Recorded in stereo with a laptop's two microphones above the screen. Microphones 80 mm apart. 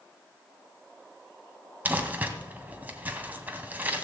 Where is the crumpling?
20° right (ahead or behind), 1.9 m.